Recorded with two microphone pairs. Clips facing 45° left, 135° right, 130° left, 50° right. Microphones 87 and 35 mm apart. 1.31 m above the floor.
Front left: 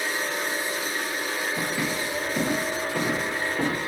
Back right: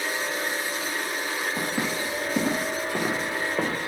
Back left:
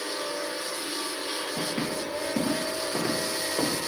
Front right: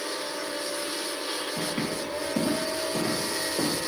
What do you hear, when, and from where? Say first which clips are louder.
1.6 s footsteps: even, back left 1 dB; 140° right, 5 m; by 3.8 s 160° right, 4.5 m